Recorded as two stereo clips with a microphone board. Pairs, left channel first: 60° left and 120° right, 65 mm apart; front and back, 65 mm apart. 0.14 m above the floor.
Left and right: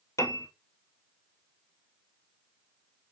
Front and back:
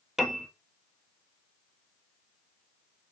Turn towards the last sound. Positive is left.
turn(degrees=95)